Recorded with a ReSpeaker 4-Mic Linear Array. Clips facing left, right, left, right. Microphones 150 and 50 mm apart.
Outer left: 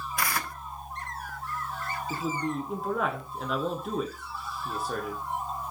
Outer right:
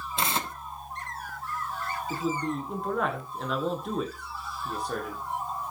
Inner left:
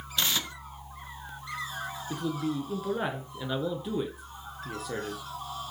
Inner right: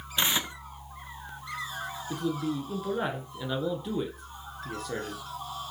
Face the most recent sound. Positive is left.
turn(degrees=5)  # may be behind; listen again after turning